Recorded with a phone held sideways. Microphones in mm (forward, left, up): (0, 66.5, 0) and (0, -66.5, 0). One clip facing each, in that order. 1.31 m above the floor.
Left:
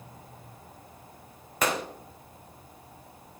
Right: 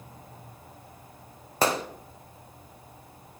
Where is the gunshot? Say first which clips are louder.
Right 3 dB; 30° right (ahead or behind), 0.8 m.